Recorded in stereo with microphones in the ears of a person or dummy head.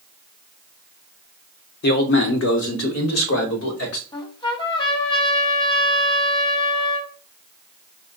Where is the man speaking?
40° left (ahead or behind), 0.8 m; by 4.0 s 80° left, 2 m.